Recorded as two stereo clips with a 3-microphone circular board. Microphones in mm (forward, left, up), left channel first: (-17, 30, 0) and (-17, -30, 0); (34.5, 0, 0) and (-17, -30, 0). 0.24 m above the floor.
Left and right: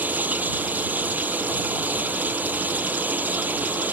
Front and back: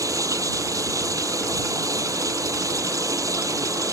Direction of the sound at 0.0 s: 150° right.